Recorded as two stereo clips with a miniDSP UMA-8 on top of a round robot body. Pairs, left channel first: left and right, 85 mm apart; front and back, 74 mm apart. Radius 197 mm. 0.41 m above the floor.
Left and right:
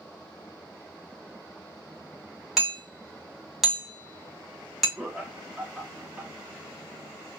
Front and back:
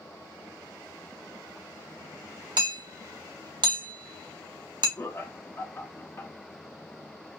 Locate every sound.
2.6 s hammering: 175° right, 1.5 m
5.0 s laughter: 20° right, 0.8 m